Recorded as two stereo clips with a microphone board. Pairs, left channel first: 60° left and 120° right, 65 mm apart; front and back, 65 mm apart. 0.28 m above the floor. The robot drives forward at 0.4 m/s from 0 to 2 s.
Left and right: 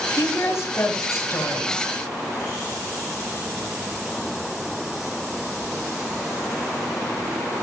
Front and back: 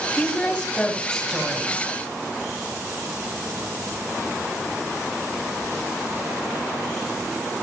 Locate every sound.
0.2 s a woman speaking: 55° left, 1.7 m; by 1.9 s 90° left, 1.5 m